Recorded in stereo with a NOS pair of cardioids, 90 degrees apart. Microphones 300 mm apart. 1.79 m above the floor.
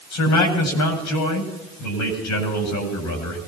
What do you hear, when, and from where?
0.1 s a man speaking: 70° left, 7.5 m